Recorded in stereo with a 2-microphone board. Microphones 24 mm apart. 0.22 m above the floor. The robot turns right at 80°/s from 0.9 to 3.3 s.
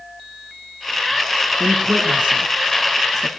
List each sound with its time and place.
1.6 s a man speaking: 55° right (ahead or behind), 2.5 m; by 3.3 s 15° left (ahead or behind), 2.5 m